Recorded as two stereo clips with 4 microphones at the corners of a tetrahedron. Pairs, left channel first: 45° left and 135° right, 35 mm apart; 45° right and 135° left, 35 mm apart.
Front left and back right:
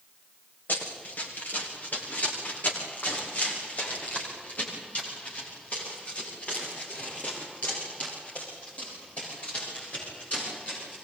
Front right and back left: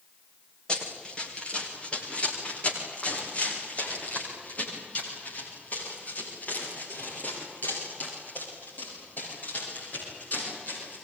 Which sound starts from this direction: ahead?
Running footsteps, at 0.7 s.